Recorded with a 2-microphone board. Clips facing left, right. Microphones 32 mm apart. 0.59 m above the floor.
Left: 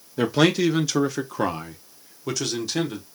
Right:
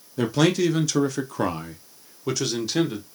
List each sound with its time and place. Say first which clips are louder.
0.2 s a man speaking: left 1 dB; 15° left (ahead or behind), 0.7 m; by 3.0 s centre (ahead or behind), 1.3 m